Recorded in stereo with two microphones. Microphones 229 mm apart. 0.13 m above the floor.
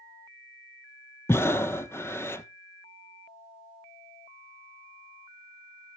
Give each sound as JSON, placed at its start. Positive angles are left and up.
{"t": 1.3, "sound": "breathing", "side_deg": 10, "distance_m": 0.6}